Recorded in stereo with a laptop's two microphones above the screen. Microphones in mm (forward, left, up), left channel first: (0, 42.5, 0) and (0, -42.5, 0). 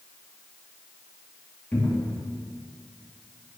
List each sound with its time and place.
1.7 s a cupboard door: 20° left (ahead or behind), 2 m